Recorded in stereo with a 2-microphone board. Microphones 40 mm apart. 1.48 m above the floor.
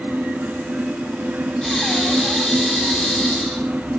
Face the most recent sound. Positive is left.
turn(degrees=10)  # may be behind; listen again after turning